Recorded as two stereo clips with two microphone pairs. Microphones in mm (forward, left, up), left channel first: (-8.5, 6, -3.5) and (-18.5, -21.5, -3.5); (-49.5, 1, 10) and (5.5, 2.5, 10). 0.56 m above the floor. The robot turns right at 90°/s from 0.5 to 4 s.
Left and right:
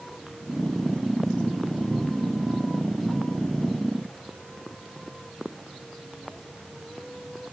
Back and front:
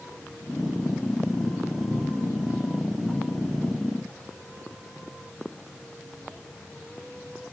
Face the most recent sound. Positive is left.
No sound to turn to.